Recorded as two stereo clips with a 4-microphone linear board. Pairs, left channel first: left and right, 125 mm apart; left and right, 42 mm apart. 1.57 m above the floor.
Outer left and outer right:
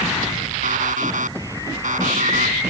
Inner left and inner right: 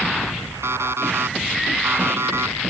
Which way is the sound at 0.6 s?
75° right (ahead or behind).